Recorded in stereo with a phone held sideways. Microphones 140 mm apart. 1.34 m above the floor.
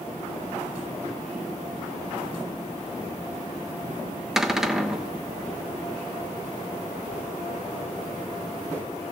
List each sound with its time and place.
4.4 s a cupboard door: 5° right (ahead or behind), 0.9 m